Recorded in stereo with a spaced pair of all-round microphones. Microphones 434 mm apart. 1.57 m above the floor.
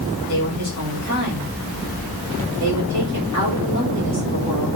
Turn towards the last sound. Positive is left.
turn(degrees=-25)  # may be behind; listen again after turning